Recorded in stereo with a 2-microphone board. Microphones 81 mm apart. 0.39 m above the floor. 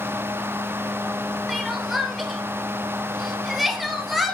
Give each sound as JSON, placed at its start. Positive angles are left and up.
{"t": 1.5, "sound": "crying", "side_deg": 0, "distance_m": 2.5}